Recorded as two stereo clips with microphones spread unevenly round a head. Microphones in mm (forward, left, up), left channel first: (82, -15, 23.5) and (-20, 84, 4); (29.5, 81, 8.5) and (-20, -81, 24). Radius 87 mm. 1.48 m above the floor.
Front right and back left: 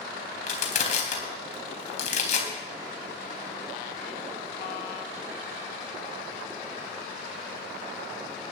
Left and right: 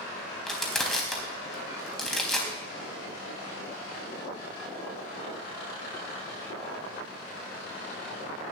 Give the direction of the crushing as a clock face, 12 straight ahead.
1 o'clock.